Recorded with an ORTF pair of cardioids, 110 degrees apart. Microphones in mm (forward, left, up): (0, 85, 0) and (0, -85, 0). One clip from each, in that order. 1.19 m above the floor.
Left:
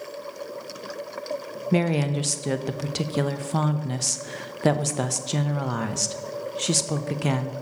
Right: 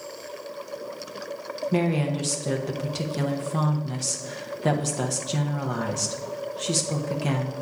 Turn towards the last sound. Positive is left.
turn(degrees=30)